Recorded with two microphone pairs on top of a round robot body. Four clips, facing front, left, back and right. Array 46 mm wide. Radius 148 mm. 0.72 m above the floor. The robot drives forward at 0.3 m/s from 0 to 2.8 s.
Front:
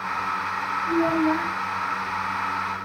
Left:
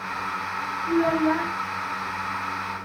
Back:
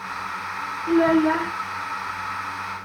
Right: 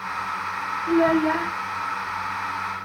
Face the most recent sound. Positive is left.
turn(degrees=-155)